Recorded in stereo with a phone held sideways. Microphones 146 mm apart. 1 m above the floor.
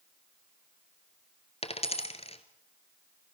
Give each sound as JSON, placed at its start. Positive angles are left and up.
{"t": 1.6, "sound": "a dropped coin", "side_deg": 45, "distance_m": 1.6}